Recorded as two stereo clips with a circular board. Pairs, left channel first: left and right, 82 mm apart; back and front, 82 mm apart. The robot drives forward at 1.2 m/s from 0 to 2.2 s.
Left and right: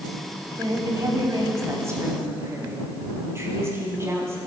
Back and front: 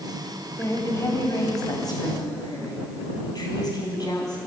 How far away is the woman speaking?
About 2.5 m.